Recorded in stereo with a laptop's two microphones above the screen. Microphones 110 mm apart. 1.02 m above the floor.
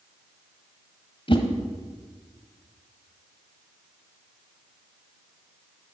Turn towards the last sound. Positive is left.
turn(degrees=50)  # may be behind; listen again after turning